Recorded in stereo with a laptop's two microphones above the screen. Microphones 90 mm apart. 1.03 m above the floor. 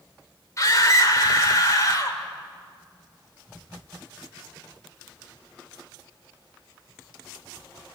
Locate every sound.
0.6 s a scream: 40° left (ahead or behind), 3.5 m